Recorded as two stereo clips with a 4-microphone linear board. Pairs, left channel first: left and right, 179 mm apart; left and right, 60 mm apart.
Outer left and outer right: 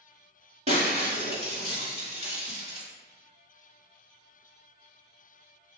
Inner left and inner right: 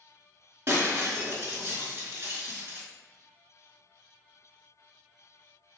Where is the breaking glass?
40° right (ahead or behind), 1.4 m.